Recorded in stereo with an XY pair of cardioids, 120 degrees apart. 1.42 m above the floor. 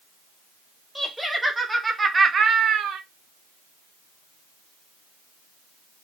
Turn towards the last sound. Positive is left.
turn(degrees=-65)